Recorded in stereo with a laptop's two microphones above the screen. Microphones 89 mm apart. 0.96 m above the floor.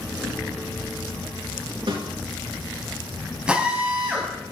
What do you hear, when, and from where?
1.9 s a snare drum: 80° right, 4.5 m
3.5 s a drill: 10° right (ahead or behind), 4 m